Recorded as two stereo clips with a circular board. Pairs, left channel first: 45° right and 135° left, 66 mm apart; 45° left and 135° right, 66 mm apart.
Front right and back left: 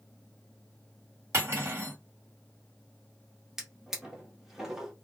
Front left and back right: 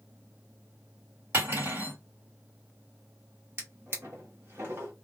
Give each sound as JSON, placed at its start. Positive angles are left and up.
{"t": 1.3, "sound": "cutlery clinking", "azimuth_deg": 175, "distance_m": 1.8}
{"t": 3.6, "sound": "a drawer", "azimuth_deg": -145, "distance_m": 1.0}